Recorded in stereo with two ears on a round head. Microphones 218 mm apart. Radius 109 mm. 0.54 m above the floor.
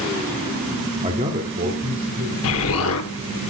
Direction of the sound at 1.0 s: 25° right (ahead or behind).